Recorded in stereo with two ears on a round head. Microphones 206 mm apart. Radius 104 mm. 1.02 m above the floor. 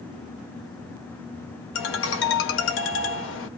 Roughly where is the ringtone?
Left.